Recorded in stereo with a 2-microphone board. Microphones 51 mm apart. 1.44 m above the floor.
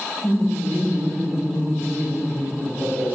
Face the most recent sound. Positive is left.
turn(degrees=-50)  # may be behind; listen again after turning